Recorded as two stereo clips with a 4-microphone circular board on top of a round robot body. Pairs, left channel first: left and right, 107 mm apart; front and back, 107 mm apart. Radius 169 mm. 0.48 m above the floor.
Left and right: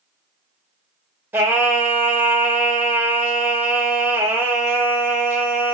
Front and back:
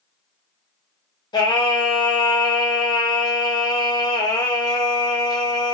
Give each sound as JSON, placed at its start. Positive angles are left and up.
{"t": 1.3, "sound": "singing", "azimuth_deg": -25, "distance_m": 1.0}